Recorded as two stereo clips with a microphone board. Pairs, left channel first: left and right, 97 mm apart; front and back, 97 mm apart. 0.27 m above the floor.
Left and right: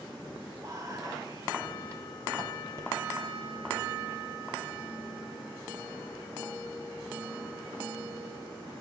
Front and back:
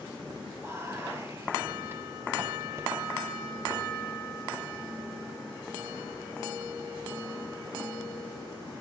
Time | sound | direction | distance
0.6 | whispering | 130° right | 2.0 m